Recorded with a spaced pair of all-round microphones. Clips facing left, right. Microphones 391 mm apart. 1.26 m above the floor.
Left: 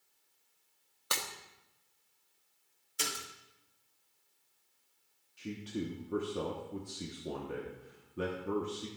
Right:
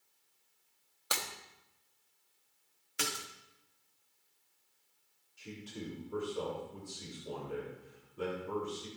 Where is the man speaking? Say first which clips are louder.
Left 7 dB; 75° left (ahead or behind), 1.4 m.